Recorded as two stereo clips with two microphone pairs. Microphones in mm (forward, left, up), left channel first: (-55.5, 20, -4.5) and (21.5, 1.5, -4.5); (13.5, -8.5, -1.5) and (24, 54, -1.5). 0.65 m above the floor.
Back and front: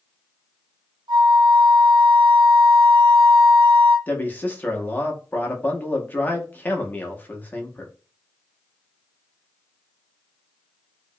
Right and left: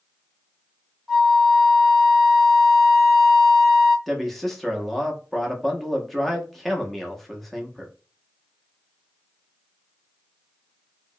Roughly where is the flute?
Ahead.